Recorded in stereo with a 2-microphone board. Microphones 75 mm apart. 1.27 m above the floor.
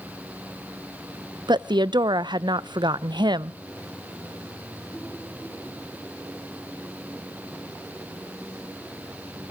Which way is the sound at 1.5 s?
75° right (ahead or behind).